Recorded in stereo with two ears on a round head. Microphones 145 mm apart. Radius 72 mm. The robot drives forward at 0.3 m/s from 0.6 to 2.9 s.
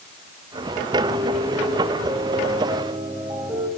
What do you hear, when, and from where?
1.0 s a piano: 20° right (ahead or behind), 3 m